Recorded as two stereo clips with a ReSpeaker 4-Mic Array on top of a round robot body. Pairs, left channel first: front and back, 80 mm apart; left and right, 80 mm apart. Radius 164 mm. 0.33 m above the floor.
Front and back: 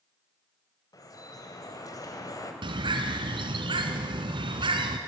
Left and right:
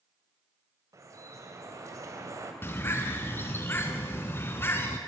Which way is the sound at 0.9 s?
40° right.